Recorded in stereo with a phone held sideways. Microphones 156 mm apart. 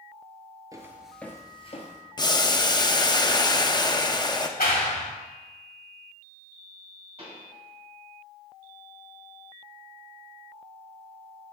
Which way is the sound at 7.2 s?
40° right (ahead or behind).